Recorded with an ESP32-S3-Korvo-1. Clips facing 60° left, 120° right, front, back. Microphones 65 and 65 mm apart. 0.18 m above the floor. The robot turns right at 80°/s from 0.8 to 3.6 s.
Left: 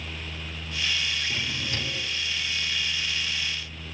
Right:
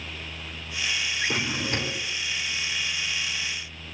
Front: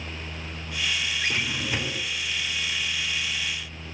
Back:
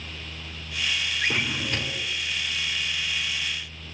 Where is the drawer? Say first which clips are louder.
Right 4 dB, back 1 dB; 120° right, 1.3 m; by 2.1 s 50° right, 1.3 m.